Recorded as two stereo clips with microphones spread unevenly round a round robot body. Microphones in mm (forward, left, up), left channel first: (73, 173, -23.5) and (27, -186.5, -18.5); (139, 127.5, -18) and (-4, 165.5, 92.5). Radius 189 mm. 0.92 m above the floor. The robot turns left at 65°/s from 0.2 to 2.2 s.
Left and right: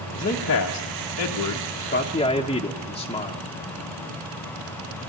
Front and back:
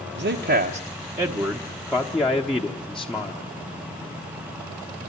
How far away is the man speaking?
About 1.0 m.